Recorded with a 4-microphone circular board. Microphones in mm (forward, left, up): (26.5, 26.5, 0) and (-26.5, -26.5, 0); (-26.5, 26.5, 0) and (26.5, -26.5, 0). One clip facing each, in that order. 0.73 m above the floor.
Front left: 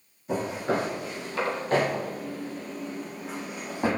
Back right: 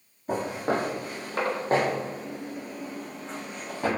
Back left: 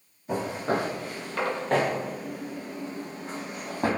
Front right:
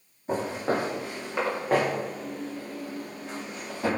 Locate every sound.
0.3 s footsteps: 100° right, 1.4 m; by 3.9 s 115° left, 1.0 m